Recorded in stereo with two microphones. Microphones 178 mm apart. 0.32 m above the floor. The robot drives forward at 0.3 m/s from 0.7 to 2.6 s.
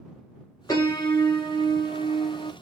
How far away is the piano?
About 1.0 m.